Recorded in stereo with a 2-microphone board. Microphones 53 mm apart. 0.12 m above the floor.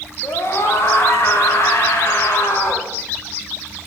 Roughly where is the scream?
Left.